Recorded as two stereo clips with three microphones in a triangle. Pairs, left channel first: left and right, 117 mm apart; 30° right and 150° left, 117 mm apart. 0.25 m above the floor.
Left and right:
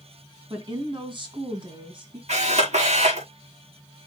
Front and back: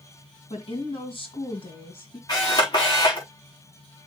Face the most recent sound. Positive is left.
turn(degrees=-80)